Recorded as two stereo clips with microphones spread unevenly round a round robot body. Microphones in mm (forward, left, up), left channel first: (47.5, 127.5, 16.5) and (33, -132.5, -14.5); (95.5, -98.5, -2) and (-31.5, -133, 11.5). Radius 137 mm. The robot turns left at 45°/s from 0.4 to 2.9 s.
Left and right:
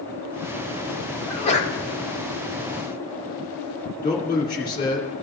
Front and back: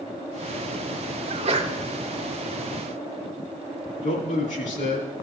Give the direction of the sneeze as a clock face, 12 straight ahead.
6 o'clock.